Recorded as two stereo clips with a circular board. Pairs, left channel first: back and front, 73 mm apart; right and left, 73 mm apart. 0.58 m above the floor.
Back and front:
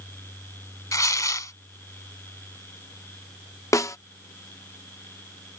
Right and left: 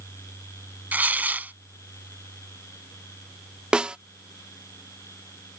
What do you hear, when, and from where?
0.9 s tearing paper: 155° left
3.7 s a snare drum: 165° left